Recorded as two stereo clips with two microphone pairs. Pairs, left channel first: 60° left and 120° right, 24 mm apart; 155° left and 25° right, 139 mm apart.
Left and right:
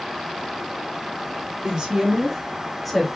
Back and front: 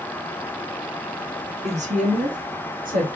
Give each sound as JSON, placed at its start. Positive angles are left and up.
{"t": 1.6, "sound": "a woman speaking", "azimuth_deg": -65, "distance_m": 1.4}